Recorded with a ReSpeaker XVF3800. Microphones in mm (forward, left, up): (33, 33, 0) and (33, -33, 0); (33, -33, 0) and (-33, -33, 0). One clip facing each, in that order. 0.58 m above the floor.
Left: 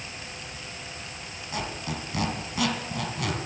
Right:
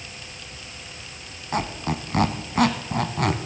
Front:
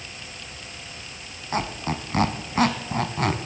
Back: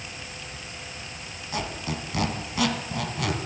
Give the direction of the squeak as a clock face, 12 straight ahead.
2 o'clock.